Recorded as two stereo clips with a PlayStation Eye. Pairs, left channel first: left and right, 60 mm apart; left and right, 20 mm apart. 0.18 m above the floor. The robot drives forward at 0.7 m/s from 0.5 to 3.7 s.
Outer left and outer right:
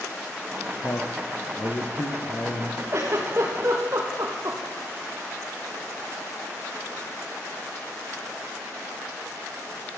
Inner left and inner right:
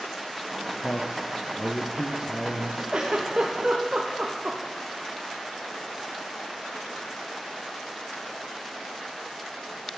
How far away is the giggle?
About 5.5 m.